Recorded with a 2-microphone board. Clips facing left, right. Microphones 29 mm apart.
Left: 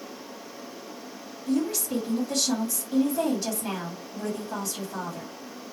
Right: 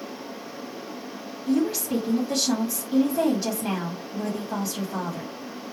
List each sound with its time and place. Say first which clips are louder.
1.5 s a woman speaking: right 3 dB; 10° right (ahead or behind), 1.5 m